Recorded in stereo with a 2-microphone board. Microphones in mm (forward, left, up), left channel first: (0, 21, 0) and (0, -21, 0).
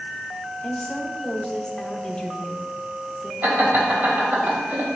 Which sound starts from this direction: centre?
A woman speaking, at 0.6 s.